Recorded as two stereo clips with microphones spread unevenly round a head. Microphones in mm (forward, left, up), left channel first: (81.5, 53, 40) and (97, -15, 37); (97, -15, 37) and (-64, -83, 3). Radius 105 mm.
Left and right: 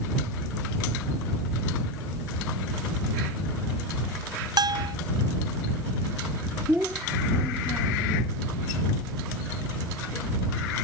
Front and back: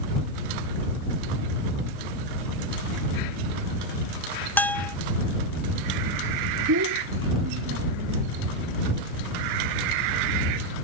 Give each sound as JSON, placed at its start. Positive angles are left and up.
{"t": 4.6, "sound": "a bell", "azimuth_deg": -55}
{"t": 6.7, "sound": "a child speaking", "azimuth_deg": -160}